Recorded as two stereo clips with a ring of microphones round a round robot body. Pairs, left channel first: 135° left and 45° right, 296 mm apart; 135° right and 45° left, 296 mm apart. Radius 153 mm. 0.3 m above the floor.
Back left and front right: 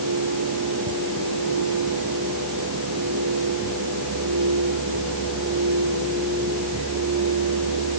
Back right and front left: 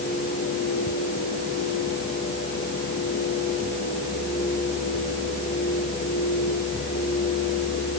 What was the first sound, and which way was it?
Only background noise.